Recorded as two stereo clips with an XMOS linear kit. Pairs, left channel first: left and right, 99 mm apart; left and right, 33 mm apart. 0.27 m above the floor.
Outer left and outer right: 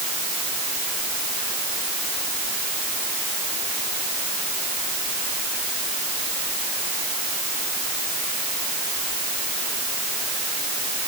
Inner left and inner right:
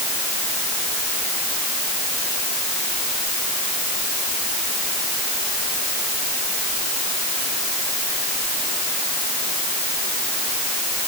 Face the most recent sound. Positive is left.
No sound to turn to.